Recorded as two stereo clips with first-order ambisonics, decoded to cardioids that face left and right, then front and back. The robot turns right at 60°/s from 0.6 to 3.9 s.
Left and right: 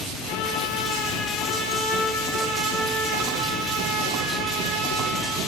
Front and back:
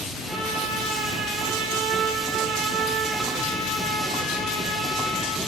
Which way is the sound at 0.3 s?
100° left.